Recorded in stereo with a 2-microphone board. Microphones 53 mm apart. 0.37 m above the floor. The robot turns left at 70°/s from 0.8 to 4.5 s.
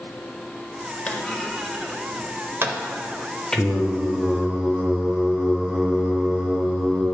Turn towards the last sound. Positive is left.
turn(degrees=-5)  # may be behind; listen again after turning